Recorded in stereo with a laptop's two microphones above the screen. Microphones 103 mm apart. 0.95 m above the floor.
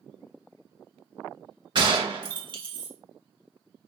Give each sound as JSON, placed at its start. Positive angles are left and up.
{"t": 1.8, "sound": "a gunshot", "side_deg": -45, "distance_m": 1.2}